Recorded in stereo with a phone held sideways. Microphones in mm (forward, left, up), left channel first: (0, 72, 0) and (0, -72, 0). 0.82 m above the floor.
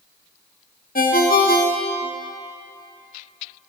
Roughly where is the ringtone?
Left.